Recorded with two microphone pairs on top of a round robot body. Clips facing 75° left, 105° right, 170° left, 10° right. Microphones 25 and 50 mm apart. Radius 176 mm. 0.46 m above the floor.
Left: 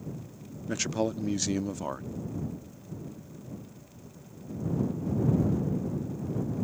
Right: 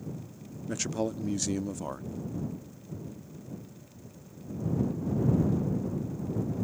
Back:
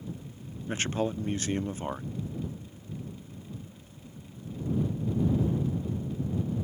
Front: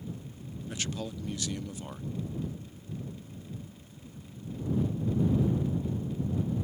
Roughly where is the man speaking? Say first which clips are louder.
Left 2 dB, back 7 dB; behind left.